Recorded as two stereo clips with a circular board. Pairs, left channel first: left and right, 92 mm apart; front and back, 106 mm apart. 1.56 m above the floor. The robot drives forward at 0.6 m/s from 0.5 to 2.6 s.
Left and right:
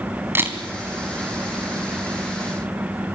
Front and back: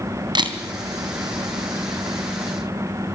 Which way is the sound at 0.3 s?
150° right.